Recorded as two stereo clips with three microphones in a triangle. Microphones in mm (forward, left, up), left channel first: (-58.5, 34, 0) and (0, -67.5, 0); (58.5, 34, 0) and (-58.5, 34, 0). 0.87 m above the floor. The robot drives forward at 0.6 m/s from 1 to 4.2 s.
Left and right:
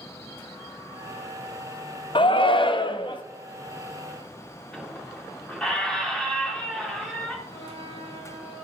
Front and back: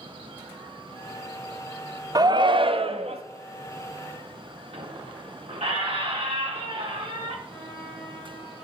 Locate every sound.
2.1 s a shout: 135° left, 0.5 m; by 3.2 s 160° left, 1.1 m
4.7 s a squeak: 155° right, 1.8 m
7.5 s a flute: 95° left, 3.5 m